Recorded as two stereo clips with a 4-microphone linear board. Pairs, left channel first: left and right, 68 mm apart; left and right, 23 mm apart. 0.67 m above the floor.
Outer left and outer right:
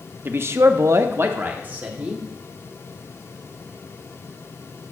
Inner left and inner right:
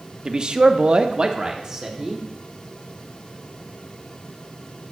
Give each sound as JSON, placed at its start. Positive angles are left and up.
{"t": 0.2, "sound": "a man speaking", "side_deg": -30, "distance_m": 0.9}